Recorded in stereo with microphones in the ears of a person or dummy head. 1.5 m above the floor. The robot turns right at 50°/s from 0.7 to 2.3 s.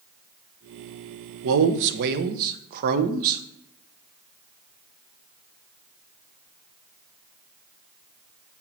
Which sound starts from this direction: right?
A man speaking, at 1.4 s.